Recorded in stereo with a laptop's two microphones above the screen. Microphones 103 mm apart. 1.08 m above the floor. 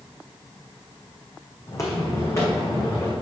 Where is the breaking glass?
No breaking glass in this recording.